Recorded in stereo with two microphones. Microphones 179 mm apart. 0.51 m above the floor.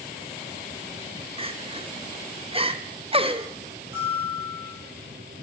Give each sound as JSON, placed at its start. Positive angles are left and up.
{"t": 1.4, "sound": "crying", "side_deg": -30, "distance_m": 0.7}
{"t": 3.9, "sound": "a bell", "side_deg": -10, "distance_m": 9.5}